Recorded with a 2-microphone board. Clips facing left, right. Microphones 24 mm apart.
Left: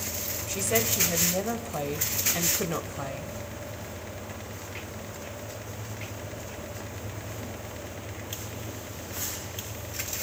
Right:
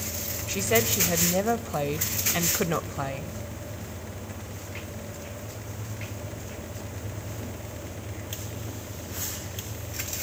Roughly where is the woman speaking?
Centre.